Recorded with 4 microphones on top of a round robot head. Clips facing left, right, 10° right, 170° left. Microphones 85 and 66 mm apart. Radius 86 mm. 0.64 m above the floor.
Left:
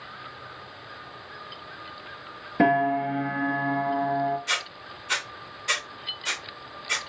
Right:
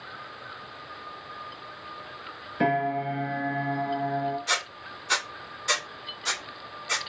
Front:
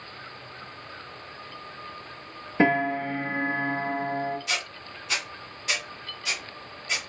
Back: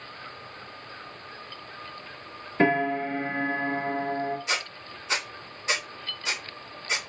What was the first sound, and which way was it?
A piano, 65° left.